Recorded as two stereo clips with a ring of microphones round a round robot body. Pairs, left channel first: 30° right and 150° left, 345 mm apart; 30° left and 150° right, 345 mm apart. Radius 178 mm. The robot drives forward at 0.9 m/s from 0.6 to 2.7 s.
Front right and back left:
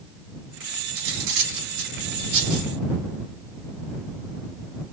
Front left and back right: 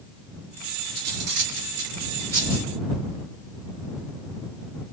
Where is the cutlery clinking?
175° left, 3.5 m.